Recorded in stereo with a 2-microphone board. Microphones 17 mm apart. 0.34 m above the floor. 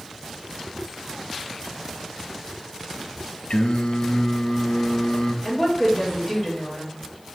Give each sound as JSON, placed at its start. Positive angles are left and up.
{"t": 3.5, "sound": "singing", "side_deg": 70, "distance_m": 0.8}
{"t": 5.5, "sound": "a woman speaking", "side_deg": -10, "distance_m": 0.9}